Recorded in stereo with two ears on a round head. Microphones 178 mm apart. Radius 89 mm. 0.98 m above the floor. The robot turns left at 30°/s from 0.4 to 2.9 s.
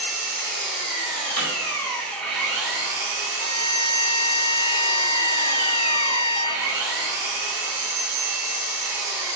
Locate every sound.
0.0 s an engine running: 60° left, 2 m; by 9.4 s 15° right, 2 m
1.4 s hammering: 75° left (ahead or behind), 1.9 m
3.4 s a violin: 30° left (ahead or behind), 0.8 m